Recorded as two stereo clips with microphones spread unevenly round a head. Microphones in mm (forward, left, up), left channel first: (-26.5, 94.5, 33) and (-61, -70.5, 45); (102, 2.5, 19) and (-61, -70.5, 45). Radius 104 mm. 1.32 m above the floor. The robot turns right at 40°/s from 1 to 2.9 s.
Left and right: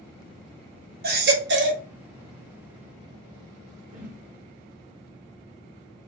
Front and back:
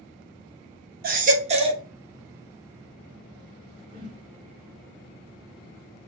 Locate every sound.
1.0 s a baby crying: 125° right, 1.0 m; by 1.8 s 95° right, 1.0 m
3.9 s a whoosh: 120° right, 1.6 m